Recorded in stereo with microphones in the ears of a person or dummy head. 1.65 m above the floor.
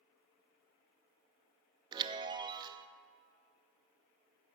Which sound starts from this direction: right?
A chime, at 1.9 s.